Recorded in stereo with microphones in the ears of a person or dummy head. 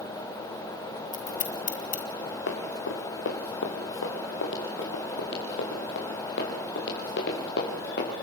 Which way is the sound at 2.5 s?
65° left (ahead or behind).